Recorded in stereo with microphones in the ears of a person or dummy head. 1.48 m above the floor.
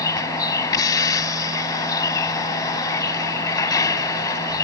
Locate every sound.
0.0 s a vehicle: 25° left (ahead or behind)